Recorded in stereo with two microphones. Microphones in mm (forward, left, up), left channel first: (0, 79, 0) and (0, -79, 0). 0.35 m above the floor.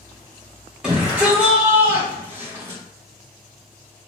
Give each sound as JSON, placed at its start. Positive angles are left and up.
{"t": 0.8, "sound": "a shout", "side_deg": -5, "distance_m": 2.0}